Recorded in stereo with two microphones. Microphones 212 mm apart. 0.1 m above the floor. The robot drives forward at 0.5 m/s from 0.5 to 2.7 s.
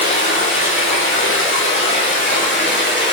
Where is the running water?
75° left (ahead or behind), 2.5 m; by 3.1 s 60° left (ahead or behind), 3 m.